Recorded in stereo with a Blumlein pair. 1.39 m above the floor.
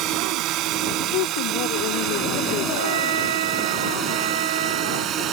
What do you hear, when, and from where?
0.0 s a drone: 35° right; by 5.3 s 30° right
1.1 s a woman speaking: 45° left
2.8 s a trumpet: 60° right